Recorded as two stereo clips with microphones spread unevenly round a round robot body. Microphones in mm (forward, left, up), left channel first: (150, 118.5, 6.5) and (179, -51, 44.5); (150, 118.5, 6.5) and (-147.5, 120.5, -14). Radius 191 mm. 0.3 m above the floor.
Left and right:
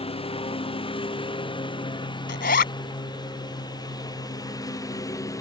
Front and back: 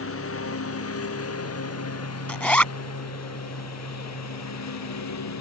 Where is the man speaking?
I don't hear a man speaking.